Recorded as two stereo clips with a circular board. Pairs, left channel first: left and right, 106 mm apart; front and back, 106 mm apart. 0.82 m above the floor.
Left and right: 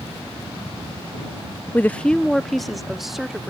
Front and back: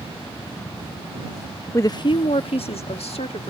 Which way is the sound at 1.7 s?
35° left.